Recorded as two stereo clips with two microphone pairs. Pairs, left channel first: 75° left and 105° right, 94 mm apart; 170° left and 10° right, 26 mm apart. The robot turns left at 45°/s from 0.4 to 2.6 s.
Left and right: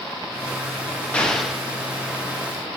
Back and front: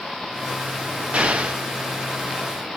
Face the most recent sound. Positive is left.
turn(degrees=-70)